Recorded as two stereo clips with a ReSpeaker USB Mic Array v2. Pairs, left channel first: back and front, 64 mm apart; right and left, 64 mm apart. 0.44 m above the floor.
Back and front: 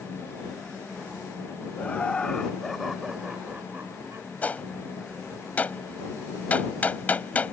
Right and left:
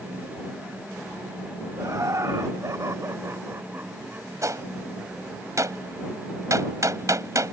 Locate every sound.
1.8 s laughter: 115° left; by 4.3 s 35° left
4.4 s a gunshot: 115° left